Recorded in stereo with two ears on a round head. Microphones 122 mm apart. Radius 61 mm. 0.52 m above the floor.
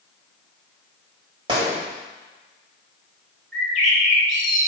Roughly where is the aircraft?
No aircraft in this recording.